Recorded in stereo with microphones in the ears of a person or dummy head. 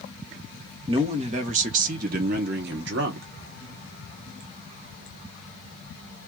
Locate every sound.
0.9 s a man speaking: 35° right (ahead or behind), 1.8 m; by 3.3 s 80° right, 1.5 m